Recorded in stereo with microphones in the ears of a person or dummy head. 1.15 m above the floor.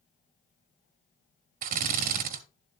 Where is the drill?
55° right (ahead or behind), 1.2 m.